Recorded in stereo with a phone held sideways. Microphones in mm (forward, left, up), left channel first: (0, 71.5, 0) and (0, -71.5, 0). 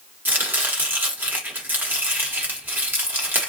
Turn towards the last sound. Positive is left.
turn(degrees=-15)  # may be behind; listen again after turning